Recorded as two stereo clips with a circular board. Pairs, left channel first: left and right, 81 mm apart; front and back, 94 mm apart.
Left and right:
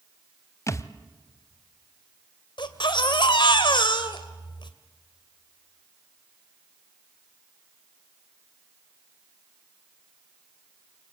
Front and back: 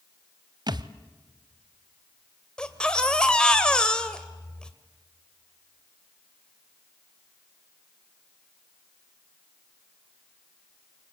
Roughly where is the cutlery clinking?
No cutlery clinking in this recording.